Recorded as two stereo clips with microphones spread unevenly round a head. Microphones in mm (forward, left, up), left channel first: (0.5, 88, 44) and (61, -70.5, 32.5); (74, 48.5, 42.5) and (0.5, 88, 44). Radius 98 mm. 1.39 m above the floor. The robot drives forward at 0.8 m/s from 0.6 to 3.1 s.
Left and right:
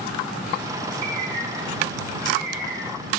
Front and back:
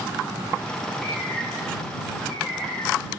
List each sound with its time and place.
1.0 s a bird: 110° right, 1.2 m; by 3.2 s 160° right, 2.5 m